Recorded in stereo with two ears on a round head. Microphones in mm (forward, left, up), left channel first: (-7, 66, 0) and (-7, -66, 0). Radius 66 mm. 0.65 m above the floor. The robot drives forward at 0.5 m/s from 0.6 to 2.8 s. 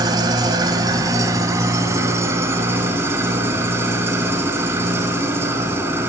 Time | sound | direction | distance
0.0 | an engine running | 30° right (ahead or behind) | 2.0 m